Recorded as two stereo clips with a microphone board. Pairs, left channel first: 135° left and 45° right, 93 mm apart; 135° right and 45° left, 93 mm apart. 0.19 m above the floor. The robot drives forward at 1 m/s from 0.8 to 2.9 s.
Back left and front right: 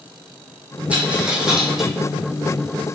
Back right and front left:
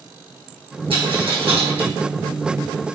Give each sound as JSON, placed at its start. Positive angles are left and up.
{"t": 0.9, "sound": "a dropped coin", "azimuth_deg": 30, "distance_m": 3.0}